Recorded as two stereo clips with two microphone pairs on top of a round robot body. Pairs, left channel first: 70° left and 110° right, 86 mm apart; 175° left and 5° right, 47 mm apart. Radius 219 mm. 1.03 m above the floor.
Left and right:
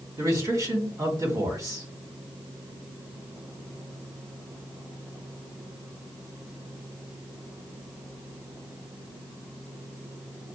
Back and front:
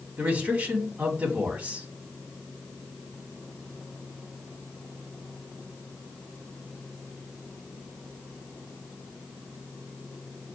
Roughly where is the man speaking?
Ahead right.